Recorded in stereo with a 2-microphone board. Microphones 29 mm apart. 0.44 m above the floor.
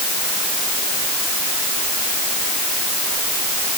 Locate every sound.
Only background noise.